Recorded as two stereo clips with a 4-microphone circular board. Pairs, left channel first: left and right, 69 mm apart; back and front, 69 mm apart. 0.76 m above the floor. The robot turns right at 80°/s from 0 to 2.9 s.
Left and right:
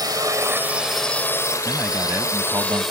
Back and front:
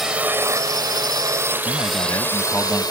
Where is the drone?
85° right; by 2.9 s 175° right.